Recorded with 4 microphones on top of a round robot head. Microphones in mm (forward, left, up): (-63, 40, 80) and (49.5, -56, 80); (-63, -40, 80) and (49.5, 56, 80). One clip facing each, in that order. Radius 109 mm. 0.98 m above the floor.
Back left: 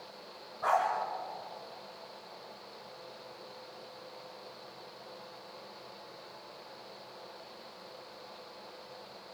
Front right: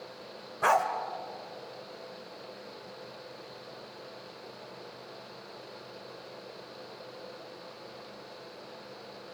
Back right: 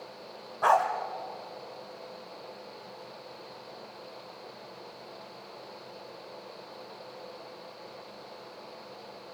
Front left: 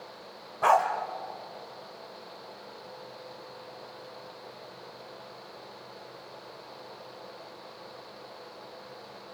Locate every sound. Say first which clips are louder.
0.6 s a dog barking: front right 3 dB, front left 1 dB; 45° right, 1.4 m